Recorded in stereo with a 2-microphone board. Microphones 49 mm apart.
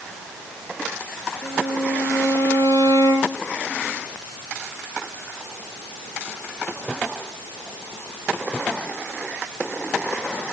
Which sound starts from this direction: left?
A violin, at 1.4 s.